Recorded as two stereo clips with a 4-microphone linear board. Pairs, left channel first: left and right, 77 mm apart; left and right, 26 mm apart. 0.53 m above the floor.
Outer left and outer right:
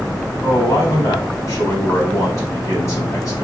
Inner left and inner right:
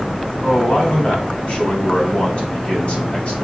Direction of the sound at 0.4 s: 40° left (ahead or behind).